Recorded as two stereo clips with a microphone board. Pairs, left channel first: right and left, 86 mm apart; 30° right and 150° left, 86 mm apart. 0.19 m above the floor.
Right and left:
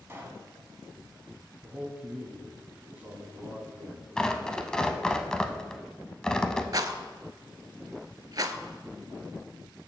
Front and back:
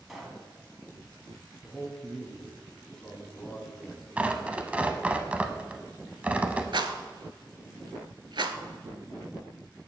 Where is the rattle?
130° left, 0.5 m.